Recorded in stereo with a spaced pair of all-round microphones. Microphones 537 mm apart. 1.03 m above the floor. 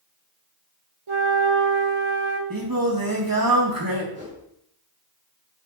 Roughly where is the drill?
I don't hear a drill.